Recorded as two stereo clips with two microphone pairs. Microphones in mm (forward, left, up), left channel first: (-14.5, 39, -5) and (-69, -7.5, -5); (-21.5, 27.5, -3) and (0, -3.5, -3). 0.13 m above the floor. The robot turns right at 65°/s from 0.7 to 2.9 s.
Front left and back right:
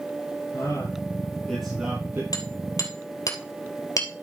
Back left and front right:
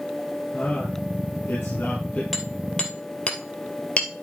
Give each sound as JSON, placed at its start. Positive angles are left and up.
{"t": 0.5, "sound": "a man speaking", "azimuth_deg": 70, "distance_m": 4.5}
{"t": 2.3, "sound": "hammering", "azimuth_deg": 30, "distance_m": 2.5}